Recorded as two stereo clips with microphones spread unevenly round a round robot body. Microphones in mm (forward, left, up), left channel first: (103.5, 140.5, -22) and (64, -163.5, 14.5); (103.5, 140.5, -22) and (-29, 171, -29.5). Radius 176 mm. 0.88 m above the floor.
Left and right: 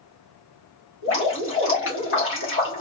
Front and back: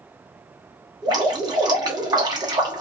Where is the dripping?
115° left, 1.1 m.